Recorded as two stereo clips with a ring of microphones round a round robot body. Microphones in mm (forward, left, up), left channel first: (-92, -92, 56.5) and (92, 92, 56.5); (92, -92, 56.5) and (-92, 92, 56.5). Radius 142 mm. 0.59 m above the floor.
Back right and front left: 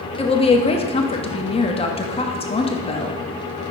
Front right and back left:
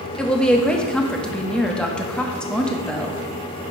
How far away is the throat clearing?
I don't hear throat clearing.